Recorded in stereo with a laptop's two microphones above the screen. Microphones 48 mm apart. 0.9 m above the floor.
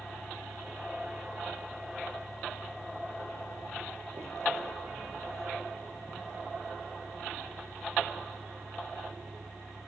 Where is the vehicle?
70° right (ahead or behind).